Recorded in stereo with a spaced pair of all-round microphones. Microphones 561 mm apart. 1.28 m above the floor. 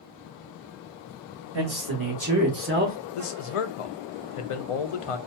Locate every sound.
1.5 s a man speaking: 45° right (ahead or behind), 1.3 m; by 3.0 s 10° right (ahead or behind), 0.8 m
3.1 s a man speaking: 70° left (ahead or behind), 0.6 m